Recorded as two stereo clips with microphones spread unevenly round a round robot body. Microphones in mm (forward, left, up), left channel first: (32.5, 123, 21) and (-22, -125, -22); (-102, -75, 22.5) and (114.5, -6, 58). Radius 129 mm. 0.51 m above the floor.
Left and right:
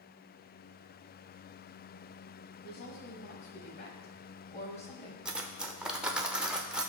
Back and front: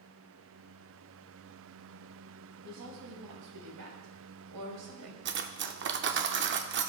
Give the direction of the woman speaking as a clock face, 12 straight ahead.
11 o'clock.